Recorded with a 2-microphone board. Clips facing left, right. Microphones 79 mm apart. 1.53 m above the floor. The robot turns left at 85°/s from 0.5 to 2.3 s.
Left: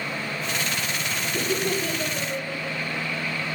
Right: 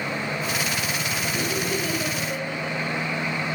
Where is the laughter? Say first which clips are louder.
Left 3 dB; 80° left, 8 m; by 3.1 s centre (ahead or behind), 8 m.